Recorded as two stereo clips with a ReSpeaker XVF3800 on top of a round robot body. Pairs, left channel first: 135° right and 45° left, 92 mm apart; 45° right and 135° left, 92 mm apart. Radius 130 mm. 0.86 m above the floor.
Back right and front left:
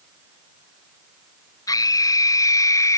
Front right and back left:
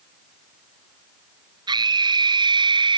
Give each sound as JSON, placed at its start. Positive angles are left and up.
{"t": 1.7, "sound": "a scream", "azimuth_deg": 175}